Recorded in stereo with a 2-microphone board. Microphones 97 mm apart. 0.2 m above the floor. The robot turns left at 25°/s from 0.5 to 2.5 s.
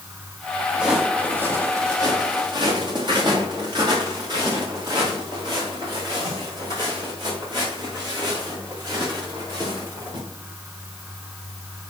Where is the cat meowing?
No cat meowing in this recording.